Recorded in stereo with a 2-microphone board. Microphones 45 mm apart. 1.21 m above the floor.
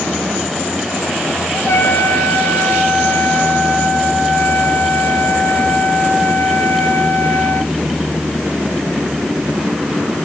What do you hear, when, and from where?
1.5 s a trumpet: 60° left (ahead or behind), 4.5 m